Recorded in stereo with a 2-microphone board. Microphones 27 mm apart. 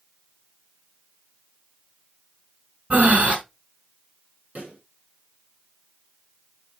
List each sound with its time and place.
2.9 s breathing: 60° right (ahead or behind), 3.5 m
4.5 s a pop: 65° right (ahead or behind), 7.5 m